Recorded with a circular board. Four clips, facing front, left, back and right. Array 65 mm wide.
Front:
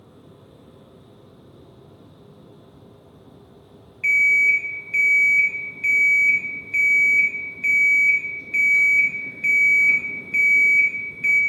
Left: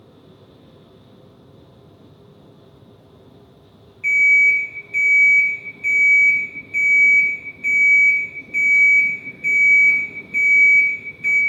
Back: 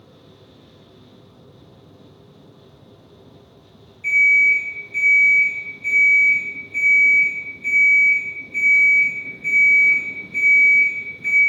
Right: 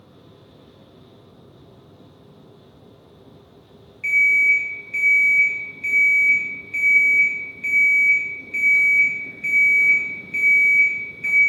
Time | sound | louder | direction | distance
4.0 | an alarm clock | left 3 dB, back 2 dB | 10° right | 0.6 m